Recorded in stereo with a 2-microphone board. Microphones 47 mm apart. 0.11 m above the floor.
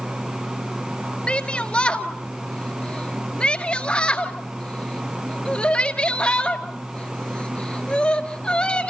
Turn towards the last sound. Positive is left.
turn(degrees=25)  # may be behind; listen again after turning